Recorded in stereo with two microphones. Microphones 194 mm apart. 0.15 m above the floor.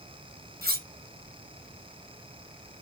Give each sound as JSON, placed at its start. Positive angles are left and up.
{"t": 0.6, "sound": "cutlery clinking", "side_deg": -55, "distance_m": 1.4}